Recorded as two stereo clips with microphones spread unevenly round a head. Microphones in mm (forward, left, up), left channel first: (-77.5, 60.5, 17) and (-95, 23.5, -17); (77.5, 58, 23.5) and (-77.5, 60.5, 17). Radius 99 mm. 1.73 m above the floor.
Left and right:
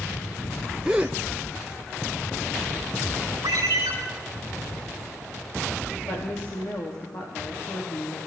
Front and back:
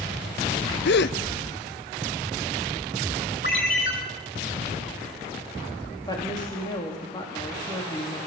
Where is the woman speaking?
60° left, 4 m.